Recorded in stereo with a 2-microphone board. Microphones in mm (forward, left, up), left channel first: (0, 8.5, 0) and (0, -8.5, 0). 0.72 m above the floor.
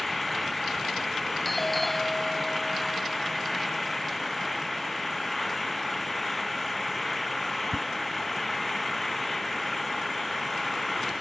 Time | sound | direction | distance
0.0 | an engine running | 5° left (ahead or behind) | ?
1.4 | a doorbell | 5° left (ahead or behind) | ?